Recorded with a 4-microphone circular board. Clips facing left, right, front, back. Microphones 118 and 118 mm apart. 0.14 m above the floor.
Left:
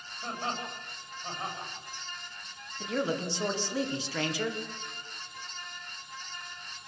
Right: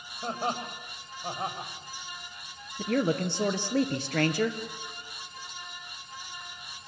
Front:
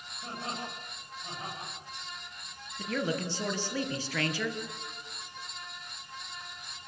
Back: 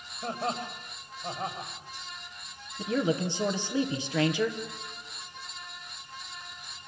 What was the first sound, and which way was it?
Laughter, 140° right.